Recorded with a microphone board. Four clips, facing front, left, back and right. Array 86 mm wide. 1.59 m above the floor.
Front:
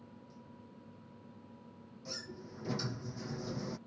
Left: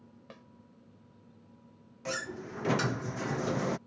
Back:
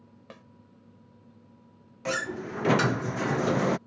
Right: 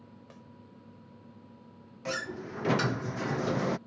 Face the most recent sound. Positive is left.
turn(degrees=-175)